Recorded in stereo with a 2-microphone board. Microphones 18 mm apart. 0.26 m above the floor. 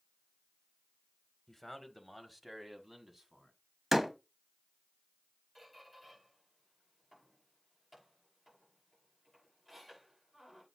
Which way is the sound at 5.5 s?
Centre (ahead or behind).